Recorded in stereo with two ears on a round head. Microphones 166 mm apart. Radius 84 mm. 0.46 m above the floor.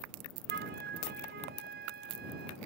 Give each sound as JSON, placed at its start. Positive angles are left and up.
{"t": 0.5, "sound": "a flute", "side_deg": -55}